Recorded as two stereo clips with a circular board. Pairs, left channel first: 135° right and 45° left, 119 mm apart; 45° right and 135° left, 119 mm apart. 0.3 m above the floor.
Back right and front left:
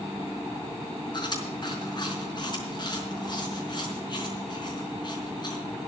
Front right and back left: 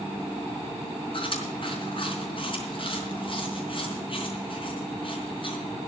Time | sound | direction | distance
1.1 | chewing | 85° right | 4.5 m